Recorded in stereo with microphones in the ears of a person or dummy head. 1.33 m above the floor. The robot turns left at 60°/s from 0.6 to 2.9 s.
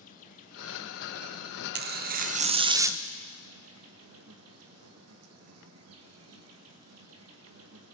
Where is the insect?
50° left, 1.8 m; by 8.0 s 85° right, 1.8 m.